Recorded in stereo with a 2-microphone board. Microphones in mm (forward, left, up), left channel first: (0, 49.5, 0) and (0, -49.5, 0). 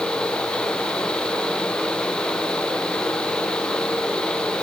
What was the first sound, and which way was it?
Only background noise.